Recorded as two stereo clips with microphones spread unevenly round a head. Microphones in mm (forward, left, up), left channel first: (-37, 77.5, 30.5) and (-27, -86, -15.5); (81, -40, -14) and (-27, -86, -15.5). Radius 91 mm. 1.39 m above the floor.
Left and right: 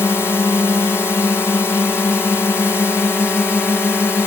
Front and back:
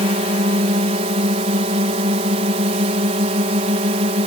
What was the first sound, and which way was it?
A drone, straight behind.